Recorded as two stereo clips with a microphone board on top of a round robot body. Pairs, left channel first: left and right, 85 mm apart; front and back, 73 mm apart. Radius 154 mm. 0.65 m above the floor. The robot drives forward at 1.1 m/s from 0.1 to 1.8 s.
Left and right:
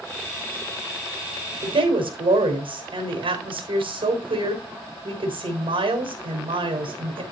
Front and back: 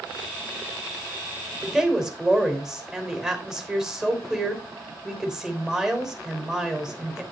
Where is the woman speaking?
95° right, 3 m.